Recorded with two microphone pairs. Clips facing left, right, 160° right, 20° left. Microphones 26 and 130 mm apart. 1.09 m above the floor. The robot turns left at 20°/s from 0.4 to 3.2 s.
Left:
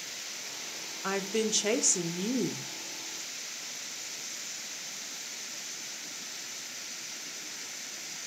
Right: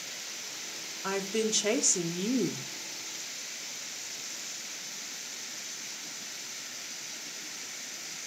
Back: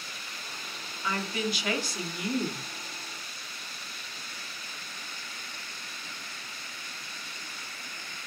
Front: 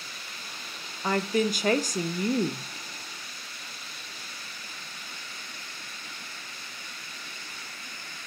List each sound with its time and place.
1.0 s a woman speaking: 15° left, 0.6 m; by 2.6 s 15° right, 0.6 m